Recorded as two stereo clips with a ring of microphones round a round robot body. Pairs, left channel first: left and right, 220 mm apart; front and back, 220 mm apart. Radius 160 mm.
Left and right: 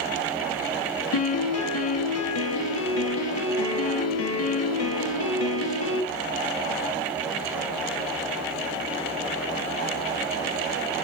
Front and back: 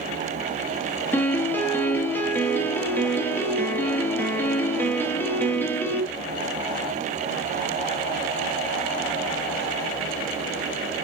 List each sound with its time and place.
1.1 s a piano: 80° left, 1.0 m